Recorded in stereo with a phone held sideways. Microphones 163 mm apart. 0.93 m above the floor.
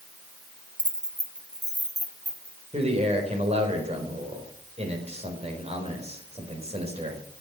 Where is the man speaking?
40° right (ahead or behind), 4.5 m.